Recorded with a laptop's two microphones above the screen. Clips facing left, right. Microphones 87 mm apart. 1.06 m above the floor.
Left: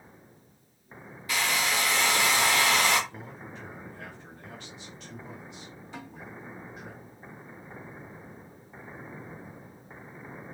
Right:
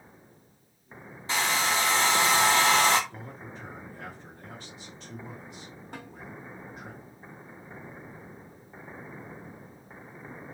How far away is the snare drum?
About 1.2 m.